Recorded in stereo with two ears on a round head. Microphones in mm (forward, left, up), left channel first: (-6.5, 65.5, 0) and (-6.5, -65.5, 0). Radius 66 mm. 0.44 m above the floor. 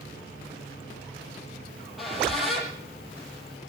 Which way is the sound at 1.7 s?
Centre (ahead or behind).